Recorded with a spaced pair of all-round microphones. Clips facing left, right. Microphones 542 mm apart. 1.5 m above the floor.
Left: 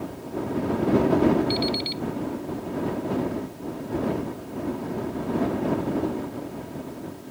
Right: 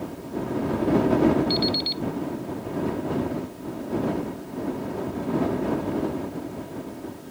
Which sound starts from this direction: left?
An alarm clock, at 1.5 s.